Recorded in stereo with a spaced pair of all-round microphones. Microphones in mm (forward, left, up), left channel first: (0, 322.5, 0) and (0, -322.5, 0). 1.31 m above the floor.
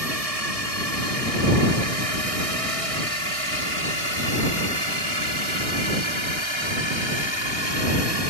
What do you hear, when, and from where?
0.0 s a drone: 65° right (ahead or behind); by 8.3 s 40° right (ahead or behind)